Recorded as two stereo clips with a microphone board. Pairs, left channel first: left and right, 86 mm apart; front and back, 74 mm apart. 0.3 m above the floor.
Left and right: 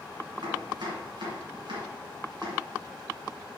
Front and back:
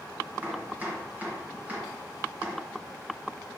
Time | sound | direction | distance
0.4 | chopping | 110° right | 2.5 m